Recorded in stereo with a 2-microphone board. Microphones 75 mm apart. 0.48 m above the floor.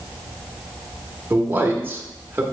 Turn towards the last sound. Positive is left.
turn(degrees=-25)  # may be behind; listen again after turning